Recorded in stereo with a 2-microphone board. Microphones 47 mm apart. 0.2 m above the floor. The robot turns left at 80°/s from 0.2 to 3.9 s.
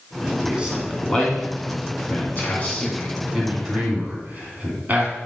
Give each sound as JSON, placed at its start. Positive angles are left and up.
{"t": 0.4, "sound": "a man speaking", "side_deg": -30, "distance_m": 2.5}